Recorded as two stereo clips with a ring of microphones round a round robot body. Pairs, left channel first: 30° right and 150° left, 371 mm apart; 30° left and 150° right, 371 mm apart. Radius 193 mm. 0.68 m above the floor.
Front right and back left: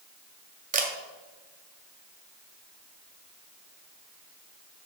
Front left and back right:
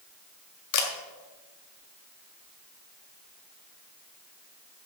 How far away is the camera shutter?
About 1.6 m.